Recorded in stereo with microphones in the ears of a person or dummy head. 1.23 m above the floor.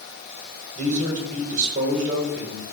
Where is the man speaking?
45° right (ahead or behind), 4.5 m.